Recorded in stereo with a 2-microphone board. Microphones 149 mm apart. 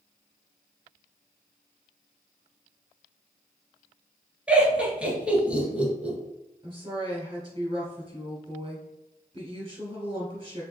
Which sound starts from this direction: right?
A woman speaking, at 6.6 s.